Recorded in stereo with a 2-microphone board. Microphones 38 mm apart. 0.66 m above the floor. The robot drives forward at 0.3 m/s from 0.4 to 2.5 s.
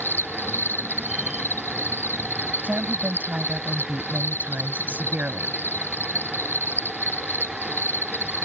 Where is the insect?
80° left.